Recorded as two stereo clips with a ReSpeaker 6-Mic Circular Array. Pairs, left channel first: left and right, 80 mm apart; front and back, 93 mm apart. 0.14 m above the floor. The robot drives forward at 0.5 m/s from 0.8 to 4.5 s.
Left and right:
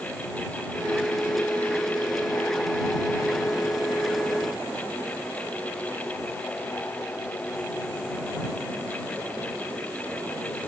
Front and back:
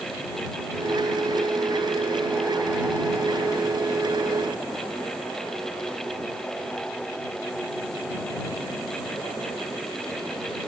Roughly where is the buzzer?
I don't hear a buzzer.